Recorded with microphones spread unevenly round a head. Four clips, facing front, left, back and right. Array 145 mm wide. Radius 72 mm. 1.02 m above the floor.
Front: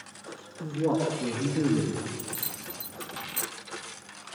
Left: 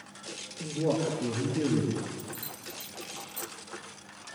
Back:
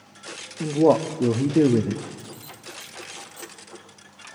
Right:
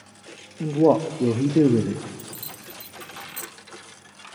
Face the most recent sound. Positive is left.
turn(degrees=-25)